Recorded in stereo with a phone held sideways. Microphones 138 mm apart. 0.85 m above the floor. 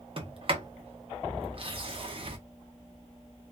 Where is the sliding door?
45° right (ahead or behind), 0.8 m.